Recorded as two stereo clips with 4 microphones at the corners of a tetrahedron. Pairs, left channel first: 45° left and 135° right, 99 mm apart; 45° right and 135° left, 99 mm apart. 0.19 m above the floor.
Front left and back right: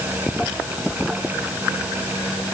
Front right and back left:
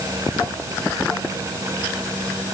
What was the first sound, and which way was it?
Only background noise.